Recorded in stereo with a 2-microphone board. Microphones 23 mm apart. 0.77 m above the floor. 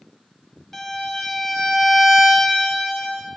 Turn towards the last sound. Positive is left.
turn(degrees=15)  # may be behind; listen again after turning